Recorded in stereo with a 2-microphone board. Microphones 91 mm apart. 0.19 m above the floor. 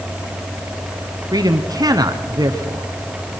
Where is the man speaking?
45° right (ahead or behind), 1.8 m.